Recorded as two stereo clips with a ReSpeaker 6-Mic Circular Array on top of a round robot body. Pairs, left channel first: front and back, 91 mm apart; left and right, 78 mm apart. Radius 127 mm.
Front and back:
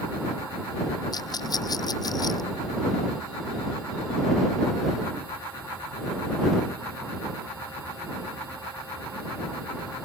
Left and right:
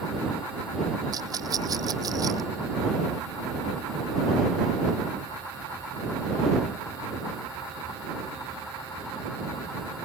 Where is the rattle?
45° right.